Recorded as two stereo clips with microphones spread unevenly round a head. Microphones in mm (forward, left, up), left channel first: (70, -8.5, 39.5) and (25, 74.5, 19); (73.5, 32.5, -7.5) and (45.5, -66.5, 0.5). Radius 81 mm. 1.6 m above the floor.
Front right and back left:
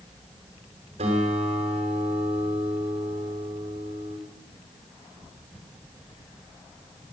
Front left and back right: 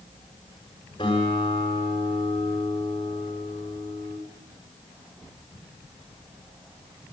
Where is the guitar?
140° left, 7 m.